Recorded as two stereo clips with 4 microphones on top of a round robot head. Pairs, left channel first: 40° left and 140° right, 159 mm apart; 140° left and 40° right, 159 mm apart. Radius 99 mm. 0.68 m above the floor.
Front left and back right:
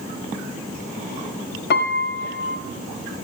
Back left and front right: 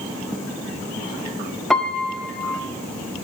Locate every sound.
1.7 s a piano: 55° left, 0.8 m